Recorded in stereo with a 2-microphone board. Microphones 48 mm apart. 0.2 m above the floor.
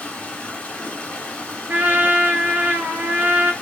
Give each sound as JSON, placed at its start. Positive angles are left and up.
{"t": 0.0, "sound": "running water", "side_deg": 25, "distance_m": 0.8}
{"t": 1.7, "sound": "a trumpet", "side_deg": -40, "distance_m": 1.0}